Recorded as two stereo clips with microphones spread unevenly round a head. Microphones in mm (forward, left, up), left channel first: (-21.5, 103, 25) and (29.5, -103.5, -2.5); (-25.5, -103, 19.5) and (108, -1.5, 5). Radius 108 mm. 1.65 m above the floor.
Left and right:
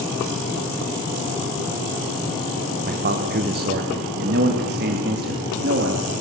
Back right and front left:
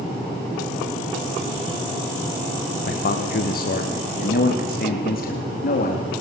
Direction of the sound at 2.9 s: 125° right.